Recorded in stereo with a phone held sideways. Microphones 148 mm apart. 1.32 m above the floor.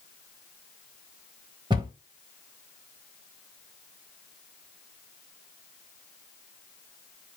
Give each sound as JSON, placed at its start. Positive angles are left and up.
{"t": 1.7, "sound": "a cupboard door", "side_deg": -30, "distance_m": 1.3}